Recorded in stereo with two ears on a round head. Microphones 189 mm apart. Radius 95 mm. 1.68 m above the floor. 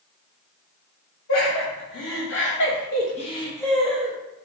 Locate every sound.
1.3 s laughter: 70° left (ahead or behind), 1.5 m; by 4.2 s 10° right (ahead or behind), 0.9 m